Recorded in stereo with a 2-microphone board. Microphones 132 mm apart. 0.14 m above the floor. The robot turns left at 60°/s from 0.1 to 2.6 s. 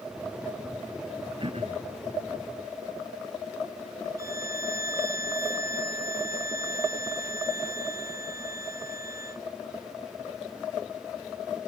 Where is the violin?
25° right (ahead or behind).